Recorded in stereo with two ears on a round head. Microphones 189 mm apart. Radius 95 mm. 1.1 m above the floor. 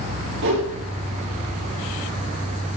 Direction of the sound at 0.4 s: 65° right (ahead or behind).